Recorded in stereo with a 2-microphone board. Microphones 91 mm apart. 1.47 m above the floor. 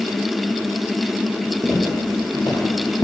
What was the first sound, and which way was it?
Footsteps, 35° left (ahead or behind).